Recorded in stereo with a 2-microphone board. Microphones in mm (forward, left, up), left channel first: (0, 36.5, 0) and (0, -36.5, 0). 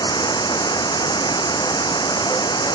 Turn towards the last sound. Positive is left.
turn(degrees=80)